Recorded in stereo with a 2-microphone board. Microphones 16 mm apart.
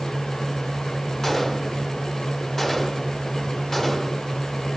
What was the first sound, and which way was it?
A gunshot, 20° left (ahead or behind).